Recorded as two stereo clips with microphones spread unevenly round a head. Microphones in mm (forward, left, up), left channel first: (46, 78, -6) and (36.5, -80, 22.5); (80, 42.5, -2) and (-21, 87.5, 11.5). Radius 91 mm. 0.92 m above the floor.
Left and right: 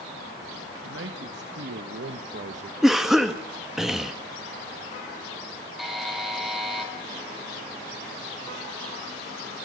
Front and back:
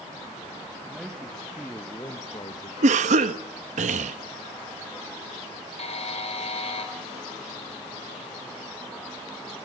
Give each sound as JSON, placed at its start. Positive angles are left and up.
{"t": 0.8, "sound": "a man speaking", "azimuth_deg": -115, "distance_m": 2.0}
{"t": 2.8, "sound": "a cough", "azimuth_deg": 175, "distance_m": 1.2}
{"t": 5.8, "sound": "a buzzer", "azimuth_deg": -5, "distance_m": 4.5}